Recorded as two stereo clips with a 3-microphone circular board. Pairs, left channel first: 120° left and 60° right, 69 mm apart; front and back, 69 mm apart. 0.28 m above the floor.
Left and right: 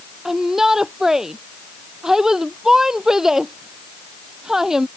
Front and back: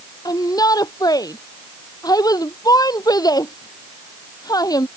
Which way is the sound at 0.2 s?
20° left.